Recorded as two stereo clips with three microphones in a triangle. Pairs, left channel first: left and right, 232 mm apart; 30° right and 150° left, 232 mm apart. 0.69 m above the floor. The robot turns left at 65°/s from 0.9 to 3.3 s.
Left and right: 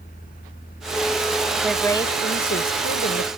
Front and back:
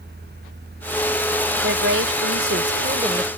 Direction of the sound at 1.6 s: 175° right.